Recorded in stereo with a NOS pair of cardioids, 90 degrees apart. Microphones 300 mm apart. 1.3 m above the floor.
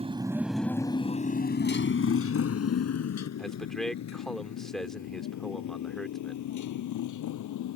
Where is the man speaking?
Straight ahead.